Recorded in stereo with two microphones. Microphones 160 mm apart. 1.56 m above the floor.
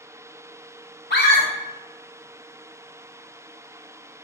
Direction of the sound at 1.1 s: 80° left.